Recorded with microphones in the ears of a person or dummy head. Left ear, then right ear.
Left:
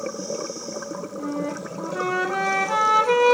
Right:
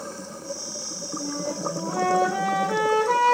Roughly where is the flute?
Left.